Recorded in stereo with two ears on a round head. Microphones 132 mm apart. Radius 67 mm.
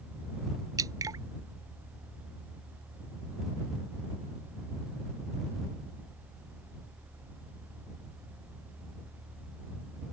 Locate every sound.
0.8 s dripping: 25° right (ahead or behind)